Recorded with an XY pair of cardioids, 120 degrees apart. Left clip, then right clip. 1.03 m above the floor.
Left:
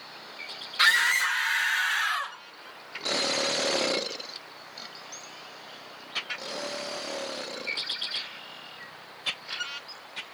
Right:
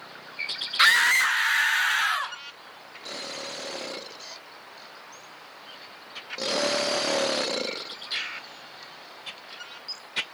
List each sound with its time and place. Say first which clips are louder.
0.8 s a scream: right 3 dB; 25° right, 0.7 m; by 2.4 s 45° right, 2 m